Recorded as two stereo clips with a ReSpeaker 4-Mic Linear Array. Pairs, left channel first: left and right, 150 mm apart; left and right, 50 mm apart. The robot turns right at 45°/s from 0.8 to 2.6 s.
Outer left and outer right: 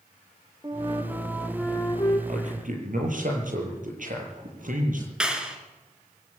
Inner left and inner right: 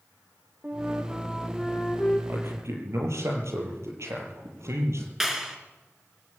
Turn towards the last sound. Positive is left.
turn(degrees=-5)  # may be behind; listen again after turning